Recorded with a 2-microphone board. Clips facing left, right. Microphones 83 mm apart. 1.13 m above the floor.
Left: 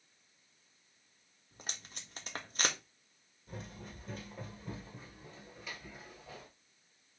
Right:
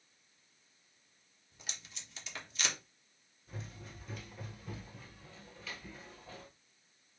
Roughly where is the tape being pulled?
Left.